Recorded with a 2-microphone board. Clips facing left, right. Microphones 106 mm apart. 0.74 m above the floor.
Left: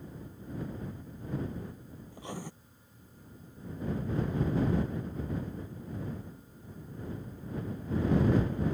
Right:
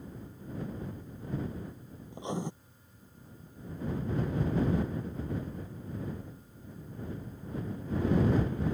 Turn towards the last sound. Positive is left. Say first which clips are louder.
# right 6 dB
turn(degrees=-20)  # may be behind; listen again after turning